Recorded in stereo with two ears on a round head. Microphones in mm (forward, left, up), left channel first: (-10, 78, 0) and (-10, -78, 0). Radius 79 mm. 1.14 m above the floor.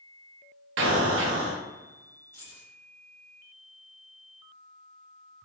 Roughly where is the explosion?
Right.